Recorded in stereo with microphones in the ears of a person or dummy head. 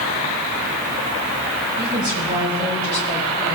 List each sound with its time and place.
1.8 s a woman speaking: 75° right (ahead or behind), 6.5 m; by 3.6 s 85° right, 6 m